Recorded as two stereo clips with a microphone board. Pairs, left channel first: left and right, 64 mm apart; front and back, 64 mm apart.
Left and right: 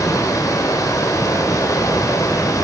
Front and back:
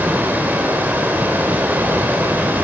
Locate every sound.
0.0 s running water: 120° left, 3.5 m